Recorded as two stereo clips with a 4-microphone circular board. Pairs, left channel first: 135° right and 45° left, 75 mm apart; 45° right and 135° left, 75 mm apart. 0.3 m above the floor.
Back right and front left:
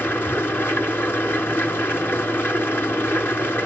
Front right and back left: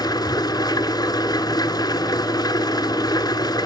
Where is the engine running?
75° right, 1.8 m.